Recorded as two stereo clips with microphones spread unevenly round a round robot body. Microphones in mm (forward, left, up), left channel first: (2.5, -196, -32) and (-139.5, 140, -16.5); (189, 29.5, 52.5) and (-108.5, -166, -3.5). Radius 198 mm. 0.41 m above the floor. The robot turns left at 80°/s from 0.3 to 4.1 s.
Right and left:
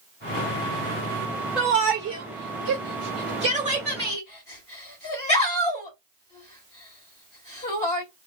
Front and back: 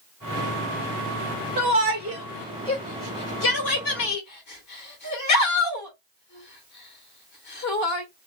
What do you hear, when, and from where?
1.6 s a shout: 155° right, 2 m; by 8.0 s straight ahead, 2 m